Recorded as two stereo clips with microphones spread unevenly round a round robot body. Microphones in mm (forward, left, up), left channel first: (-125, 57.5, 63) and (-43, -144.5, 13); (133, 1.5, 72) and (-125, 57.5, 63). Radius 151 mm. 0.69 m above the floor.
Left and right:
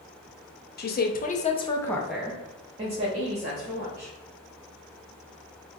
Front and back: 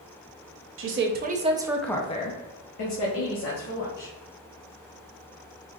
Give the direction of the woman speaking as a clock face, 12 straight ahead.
7 o'clock.